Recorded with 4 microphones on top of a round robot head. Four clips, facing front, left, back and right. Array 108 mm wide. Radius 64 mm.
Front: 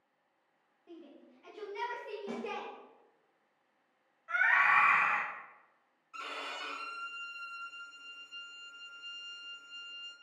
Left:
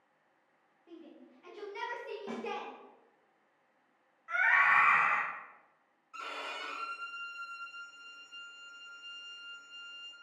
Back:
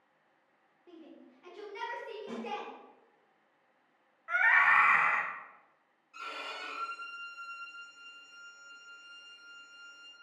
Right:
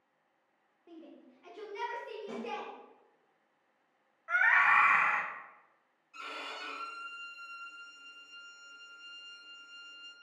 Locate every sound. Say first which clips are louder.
0.9 s a shout: even, even; 155° right, 1.1 m; by 2.7 s 80° left, 1.4 m
2.3 s a snare drum: left 2 dB, front 2 dB; 75° left, 0.9 m
4.3 s a scream: right 1 dB, back 2 dB; 140° right, 1.1 m
6.1 s a violin: left 2 dB, even; 50° left, 0.8 m